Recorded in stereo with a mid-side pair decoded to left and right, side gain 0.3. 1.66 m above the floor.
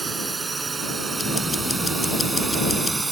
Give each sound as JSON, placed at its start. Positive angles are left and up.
{"t": 0.0, "sound": "a drone", "azimuth_deg": -35}
{"t": 1.2, "sound": "ticking", "azimuth_deg": 35}